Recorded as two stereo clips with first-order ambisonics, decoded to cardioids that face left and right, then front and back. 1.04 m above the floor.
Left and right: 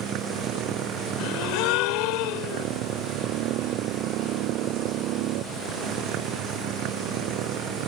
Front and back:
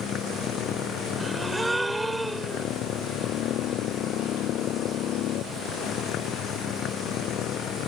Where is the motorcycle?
50° right.